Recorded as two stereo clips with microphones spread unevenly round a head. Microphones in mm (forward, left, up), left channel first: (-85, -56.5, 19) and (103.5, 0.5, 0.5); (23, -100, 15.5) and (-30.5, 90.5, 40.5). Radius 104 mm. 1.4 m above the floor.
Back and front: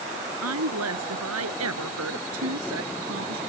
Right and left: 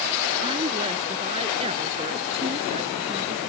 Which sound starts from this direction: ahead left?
A woman speaking, at 0.4 s.